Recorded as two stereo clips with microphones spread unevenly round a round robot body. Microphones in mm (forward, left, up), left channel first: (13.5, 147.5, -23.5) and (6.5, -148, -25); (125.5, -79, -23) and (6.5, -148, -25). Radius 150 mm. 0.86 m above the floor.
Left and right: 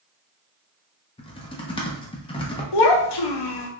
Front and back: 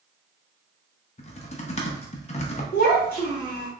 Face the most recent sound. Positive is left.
turn(degrees=85)